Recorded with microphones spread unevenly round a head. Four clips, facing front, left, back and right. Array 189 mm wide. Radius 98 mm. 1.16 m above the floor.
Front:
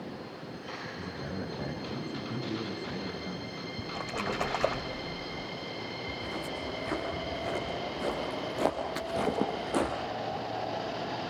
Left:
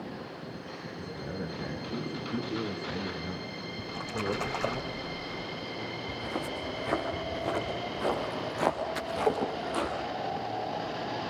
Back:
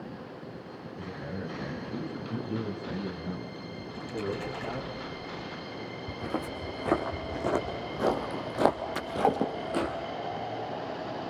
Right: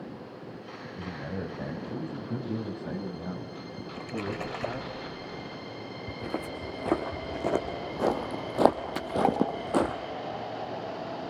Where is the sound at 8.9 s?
130° right, 5.5 m.